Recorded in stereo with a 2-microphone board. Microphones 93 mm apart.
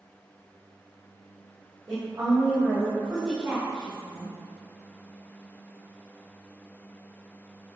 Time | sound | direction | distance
1.9 | a woman speaking | 45° right (ahead or behind) | 1.6 m